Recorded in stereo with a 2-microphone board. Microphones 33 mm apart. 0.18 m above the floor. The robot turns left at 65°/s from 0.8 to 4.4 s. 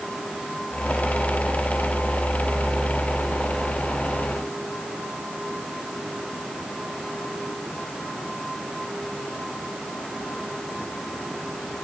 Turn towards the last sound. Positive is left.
No sound to turn to.